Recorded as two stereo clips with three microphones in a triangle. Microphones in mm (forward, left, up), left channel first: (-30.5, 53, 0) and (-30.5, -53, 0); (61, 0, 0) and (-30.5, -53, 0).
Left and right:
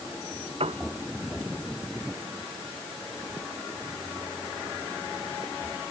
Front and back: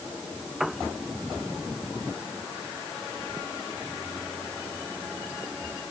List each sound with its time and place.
0.6 s a piano: 60° right